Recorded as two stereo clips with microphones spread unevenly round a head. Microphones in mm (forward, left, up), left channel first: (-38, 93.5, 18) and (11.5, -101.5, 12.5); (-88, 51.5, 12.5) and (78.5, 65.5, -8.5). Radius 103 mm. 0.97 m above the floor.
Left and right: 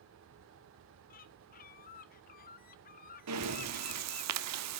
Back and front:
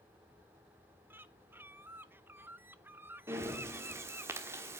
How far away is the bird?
About 0.9 m.